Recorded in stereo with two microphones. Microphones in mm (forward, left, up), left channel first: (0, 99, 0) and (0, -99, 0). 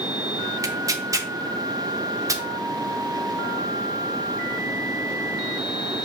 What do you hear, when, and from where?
0.6 s tearing paper: 15° right (ahead or behind), 0.5 m